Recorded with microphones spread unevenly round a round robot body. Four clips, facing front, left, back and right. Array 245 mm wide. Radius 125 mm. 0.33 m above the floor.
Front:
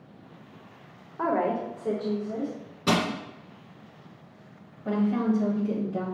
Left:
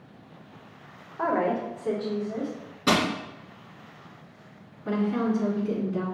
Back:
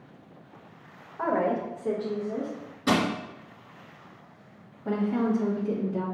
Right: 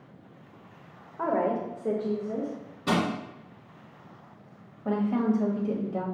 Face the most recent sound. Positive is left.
turn(degrees=-80)